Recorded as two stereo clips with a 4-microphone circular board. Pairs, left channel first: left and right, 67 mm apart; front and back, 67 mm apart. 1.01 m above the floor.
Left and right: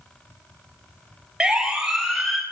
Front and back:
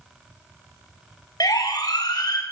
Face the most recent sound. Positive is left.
turn(degrees=5)